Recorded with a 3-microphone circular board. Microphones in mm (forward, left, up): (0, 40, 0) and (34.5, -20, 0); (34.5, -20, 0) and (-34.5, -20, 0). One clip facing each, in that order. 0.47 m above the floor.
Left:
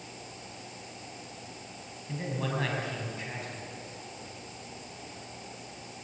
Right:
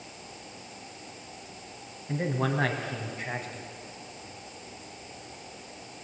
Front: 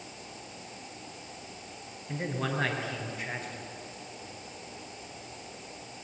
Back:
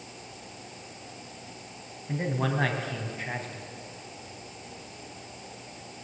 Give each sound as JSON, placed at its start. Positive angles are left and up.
{"t": 2.1, "sound": "a man speaking", "azimuth_deg": -120, "distance_m": 2.5}